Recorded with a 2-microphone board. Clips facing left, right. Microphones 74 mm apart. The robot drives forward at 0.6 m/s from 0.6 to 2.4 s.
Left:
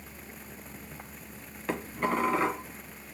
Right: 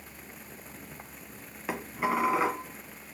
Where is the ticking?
No ticking in this recording.